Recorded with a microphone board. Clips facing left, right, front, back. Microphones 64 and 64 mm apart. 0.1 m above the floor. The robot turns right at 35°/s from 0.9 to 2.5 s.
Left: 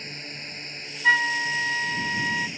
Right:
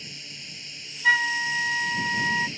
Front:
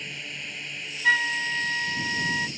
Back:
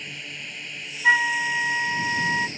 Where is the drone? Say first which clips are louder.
Left 5 dB, even; 90° left; by 2.6 s 145° left.